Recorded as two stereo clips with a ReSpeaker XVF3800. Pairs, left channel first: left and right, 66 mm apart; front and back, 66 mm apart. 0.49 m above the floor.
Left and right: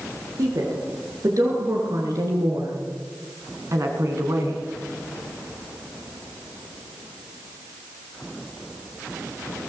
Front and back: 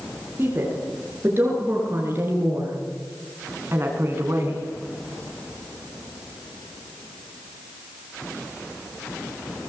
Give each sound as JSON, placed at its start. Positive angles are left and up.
{"t": 0.4, "sound": "a woman speaking", "azimuth_deg": -125, "distance_m": 8.5}